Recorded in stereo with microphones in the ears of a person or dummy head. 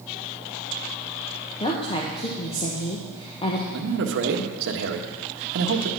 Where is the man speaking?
60° right (ahead or behind), 1.3 m.